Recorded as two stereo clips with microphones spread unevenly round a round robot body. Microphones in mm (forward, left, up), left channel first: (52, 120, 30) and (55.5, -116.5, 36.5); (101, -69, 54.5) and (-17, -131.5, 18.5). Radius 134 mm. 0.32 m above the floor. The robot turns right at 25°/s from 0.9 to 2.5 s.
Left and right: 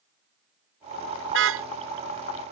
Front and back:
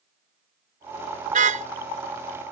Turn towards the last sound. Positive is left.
turn(degrees=-105)